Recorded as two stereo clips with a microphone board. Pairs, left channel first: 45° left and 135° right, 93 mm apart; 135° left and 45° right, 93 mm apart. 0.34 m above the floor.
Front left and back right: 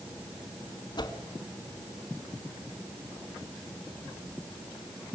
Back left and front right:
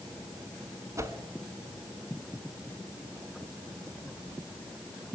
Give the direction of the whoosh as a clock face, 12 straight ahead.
12 o'clock.